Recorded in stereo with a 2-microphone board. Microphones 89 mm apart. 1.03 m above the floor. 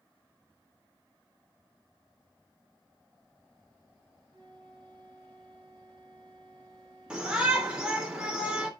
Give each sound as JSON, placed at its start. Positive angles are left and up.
{"t": 4.3, "sound": "a flute", "side_deg": -60, "distance_m": 5.0}
{"t": 7.1, "sound": "a shout", "side_deg": -10, "distance_m": 3.0}